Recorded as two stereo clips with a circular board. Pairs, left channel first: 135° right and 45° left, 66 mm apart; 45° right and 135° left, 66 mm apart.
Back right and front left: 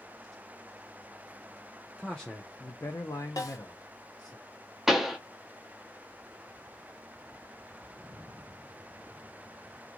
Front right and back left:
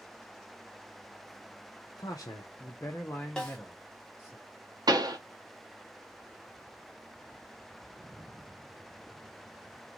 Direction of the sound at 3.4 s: 120° right.